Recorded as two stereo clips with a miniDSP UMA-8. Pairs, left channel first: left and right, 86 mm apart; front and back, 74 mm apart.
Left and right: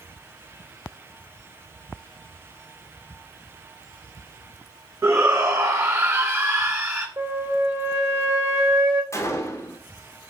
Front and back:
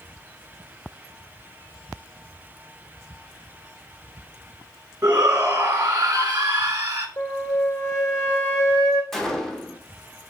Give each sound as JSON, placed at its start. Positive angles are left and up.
{"t": 5.0, "sound": "a shout", "azimuth_deg": -130, "distance_m": 1.0}
{"t": 7.2, "sound": "a flute", "azimuth_deg": -30, "distance_m": 1.5}
{"t": 9.1, "sound": "a gunshot", "azimuth_deg": 80, "distance_m": 0.8}